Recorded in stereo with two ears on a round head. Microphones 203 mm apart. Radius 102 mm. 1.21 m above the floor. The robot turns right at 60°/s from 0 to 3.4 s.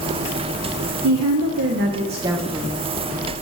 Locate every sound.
1.0 s a woman speaking: 90° right, 0.5 m; by 2.8 s 15° left, 0.5 m